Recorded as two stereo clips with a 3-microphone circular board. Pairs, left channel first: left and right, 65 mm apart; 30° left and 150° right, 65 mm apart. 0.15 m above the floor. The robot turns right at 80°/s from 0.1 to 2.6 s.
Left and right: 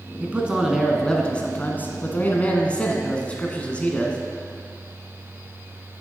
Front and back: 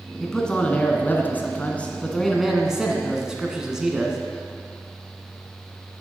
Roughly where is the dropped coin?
No dropped coin in this recording.